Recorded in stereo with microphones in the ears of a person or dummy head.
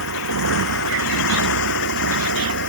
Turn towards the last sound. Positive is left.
turn(degrees=65)  # may be behind; listen again after turning